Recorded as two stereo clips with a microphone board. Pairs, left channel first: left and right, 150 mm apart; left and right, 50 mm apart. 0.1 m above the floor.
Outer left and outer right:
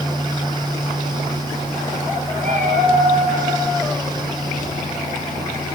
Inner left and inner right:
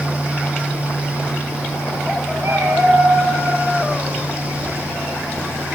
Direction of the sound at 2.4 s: 55° right (ahead or behind).